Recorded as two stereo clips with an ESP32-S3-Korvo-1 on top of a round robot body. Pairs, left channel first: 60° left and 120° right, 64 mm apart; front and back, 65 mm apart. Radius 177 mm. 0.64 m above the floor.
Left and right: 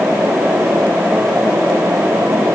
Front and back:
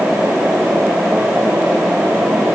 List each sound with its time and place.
Only background noise.